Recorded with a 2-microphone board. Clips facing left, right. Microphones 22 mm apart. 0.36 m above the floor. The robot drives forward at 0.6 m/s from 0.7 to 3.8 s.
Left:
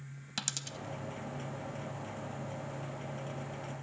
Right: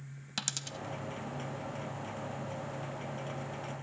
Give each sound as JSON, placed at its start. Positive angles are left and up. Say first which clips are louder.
{"t": 0.4, "sound": "a dropped coin", "louder": "right 1 dB", "side_deg": -10, "distance_m": 0.7}